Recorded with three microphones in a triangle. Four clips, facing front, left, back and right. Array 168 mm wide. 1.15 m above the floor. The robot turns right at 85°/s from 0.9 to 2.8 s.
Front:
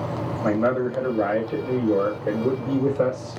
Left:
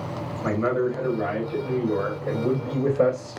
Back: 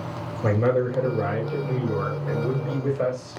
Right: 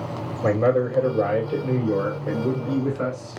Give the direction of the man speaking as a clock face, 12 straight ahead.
4 o'clock.